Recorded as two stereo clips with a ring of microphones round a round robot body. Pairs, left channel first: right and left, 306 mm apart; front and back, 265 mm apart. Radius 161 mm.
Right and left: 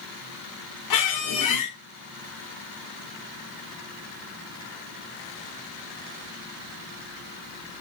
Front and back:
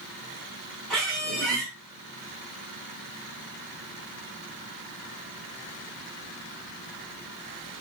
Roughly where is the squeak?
Right.